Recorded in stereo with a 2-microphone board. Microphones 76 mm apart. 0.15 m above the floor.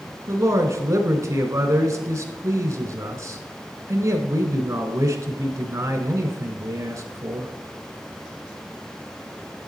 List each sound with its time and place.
0.3 s a man speaking: 40° right (ahead or behind), 1.3 m